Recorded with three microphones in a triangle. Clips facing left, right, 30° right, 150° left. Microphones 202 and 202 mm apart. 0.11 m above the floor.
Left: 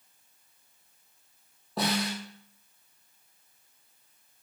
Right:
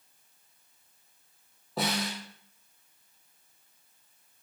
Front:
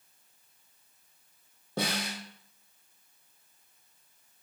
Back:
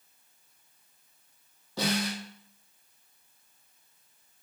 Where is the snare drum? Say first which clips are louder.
Left 2 dB, back 4 dB; straight ahead, 1.2 m.